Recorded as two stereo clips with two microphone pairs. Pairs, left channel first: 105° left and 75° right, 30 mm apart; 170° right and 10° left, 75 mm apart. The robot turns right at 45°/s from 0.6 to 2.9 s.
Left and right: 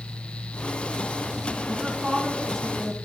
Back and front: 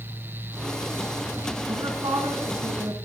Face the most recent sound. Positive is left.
turn(degrees=35)